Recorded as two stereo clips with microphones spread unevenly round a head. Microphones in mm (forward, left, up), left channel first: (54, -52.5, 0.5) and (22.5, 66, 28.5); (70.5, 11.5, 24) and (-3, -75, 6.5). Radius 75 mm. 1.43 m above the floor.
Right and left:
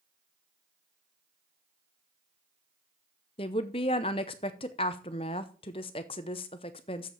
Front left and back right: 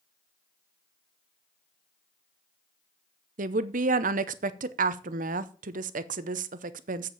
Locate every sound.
3.4 s a woman speaking: 130° right, 0.7 m